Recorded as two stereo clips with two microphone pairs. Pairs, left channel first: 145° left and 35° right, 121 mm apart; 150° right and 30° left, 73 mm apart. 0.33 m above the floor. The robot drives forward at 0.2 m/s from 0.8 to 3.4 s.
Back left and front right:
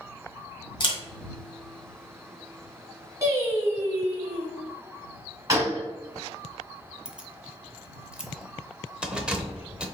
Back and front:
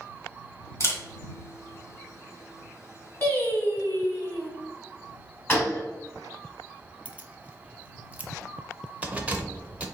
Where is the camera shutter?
175° left, 1.4 m.